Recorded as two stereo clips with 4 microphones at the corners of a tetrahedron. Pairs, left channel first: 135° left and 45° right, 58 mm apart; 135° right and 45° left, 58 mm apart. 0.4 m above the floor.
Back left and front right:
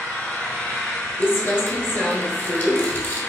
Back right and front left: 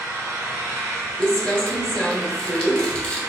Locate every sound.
0.0 s an engine running: 65° left, 2 m
1.2 s crumpling: 165° left, 1.3 m